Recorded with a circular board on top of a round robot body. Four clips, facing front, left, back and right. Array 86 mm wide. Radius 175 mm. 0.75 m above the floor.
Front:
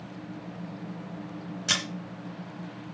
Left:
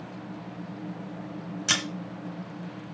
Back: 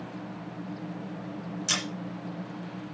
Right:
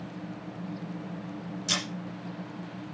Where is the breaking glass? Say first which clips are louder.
Left 4 dB, front 3 dB; 70° left, 2.5 m.